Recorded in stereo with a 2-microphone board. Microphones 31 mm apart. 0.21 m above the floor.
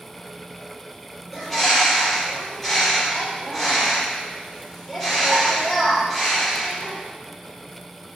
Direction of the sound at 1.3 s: 5° left (ahead or behind).